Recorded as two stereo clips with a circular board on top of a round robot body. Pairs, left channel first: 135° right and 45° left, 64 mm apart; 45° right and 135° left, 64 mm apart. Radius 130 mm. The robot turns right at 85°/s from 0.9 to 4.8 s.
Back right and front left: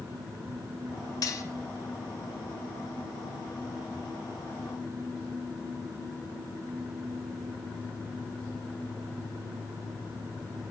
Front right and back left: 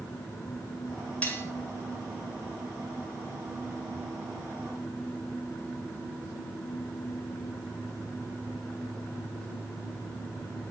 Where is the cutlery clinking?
110° right, 1.0 m; by 1.4 s 90° right, 1.0 m.